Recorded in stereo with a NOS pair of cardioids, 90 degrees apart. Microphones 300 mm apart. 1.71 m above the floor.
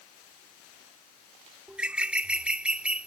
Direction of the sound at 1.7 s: 5° right.